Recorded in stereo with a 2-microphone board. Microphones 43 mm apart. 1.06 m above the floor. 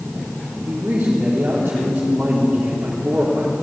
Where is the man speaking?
45° right (ahead or behind), 3.5 m.